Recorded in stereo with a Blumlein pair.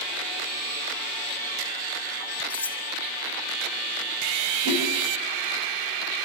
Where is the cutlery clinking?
65° left, 1.8 m.